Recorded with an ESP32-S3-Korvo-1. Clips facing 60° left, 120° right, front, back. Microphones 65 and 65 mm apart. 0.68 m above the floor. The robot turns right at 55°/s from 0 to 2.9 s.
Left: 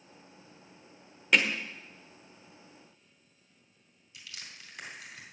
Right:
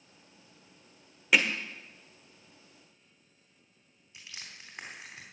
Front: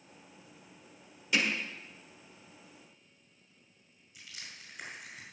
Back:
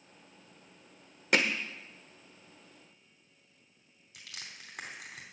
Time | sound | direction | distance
1.3 | hammering | 155° left | 1.1 m
4.1 | crushing | straight behind | 3.5 m